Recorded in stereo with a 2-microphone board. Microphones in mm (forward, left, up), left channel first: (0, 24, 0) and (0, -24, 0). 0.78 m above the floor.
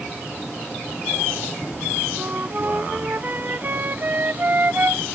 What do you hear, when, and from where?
2.2 s a flute: 45° right (ahead or behind)